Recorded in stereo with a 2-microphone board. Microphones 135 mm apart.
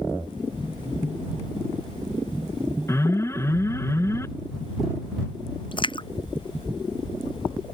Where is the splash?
35° left (ahead or behind).